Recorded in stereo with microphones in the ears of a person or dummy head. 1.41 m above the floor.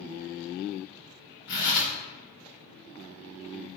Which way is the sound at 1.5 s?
40° left (ahead or behind).